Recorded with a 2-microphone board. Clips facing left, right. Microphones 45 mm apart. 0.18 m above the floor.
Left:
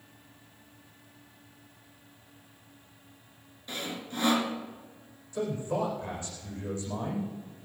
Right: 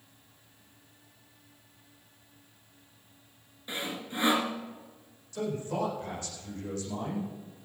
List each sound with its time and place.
3.7 s sawing: 20° right (ahead or behind), 1.9 m
5.3 s a man speaking: 15° left (ahead or behind), 8.5 m